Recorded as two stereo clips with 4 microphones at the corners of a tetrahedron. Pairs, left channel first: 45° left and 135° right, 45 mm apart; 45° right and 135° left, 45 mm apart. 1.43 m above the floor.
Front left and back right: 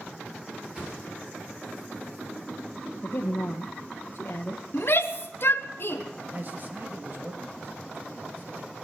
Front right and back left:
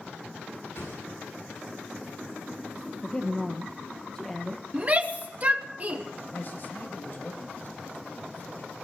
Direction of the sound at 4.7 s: 80° left.